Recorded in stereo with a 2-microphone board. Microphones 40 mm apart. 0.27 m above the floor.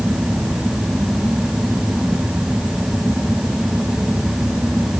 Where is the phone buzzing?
No phone buzzing in this recording.